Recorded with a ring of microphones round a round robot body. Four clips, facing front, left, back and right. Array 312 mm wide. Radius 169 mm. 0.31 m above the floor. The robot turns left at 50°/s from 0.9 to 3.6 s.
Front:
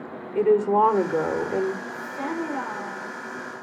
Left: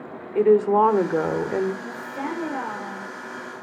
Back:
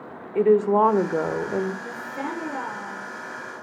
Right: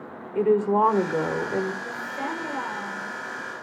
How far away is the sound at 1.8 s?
About 8 m.